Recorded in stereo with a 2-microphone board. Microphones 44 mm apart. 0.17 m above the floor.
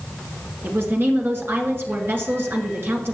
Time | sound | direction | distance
0.6 | a woman speaking | 55° right (ahead or behind) | 1.8 m